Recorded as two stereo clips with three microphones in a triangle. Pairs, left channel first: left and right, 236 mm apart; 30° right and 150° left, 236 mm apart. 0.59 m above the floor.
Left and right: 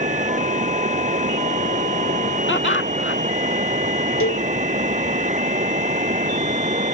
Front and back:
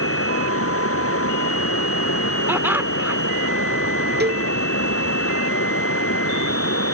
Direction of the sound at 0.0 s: 35° right.